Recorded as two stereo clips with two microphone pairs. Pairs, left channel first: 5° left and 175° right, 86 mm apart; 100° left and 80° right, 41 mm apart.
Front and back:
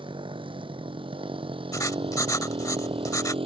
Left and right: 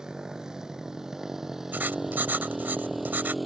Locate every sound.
0.0 s a motorcycle: 155° right; by 3.5 s 170° right
1.7 s writing: 45° right